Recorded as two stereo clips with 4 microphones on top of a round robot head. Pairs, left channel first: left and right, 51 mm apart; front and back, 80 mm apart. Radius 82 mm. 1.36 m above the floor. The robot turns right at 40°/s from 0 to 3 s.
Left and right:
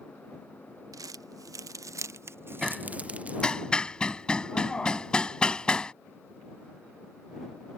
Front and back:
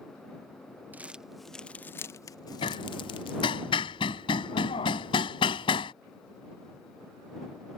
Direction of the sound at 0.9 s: 105° right.